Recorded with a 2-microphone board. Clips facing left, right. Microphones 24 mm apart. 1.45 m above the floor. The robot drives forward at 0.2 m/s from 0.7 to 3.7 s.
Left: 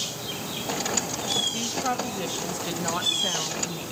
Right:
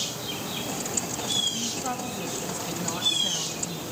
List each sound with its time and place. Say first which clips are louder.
1.5 s a woman speaking: left 3 dB; 40° left (ahead or behind), 1.8 m; by 3.9 s 50° left (ahead or behind), 1.5 m